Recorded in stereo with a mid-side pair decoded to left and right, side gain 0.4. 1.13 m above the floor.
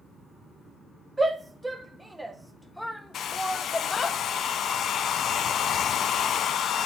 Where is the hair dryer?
70° left, 0.7 m.